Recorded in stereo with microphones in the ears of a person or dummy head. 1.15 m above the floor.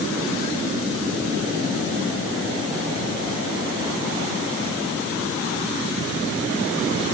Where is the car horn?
I don't hear a car horn.